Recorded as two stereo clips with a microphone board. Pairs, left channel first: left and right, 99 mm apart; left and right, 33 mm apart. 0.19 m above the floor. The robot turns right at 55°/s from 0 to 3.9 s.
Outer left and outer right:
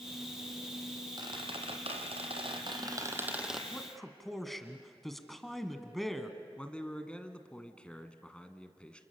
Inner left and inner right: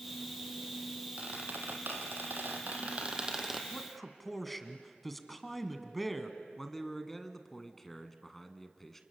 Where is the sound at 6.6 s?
10° left (ahead or behind), 1.5 m.